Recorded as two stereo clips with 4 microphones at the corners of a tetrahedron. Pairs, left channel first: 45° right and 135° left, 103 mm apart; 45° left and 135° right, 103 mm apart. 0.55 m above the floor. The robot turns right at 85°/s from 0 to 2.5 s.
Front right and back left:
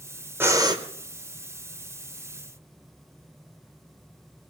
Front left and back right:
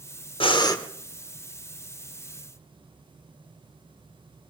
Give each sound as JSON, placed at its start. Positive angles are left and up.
{"t": 0.4, "sound": "breathing", "azimuth_deg": 70, "distance_m": 1.0}